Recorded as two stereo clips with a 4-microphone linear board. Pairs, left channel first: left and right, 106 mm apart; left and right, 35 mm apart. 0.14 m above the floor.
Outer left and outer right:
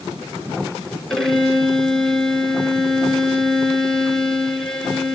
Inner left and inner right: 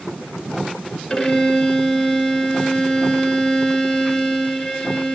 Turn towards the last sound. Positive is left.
turn(degrees=5)  # may be behind; listen again after turning